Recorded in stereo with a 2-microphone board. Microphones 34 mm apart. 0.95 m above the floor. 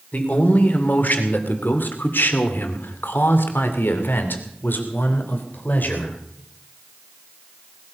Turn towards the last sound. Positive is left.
turn(degrees=55)  # may be behind; listen again after turning